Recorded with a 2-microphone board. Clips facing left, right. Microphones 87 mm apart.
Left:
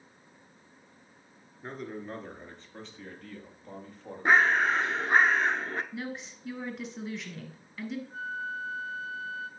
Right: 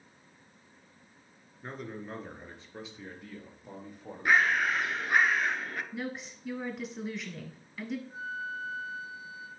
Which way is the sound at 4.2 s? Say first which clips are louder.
Left 3 dB; 30° left (ahead or behind).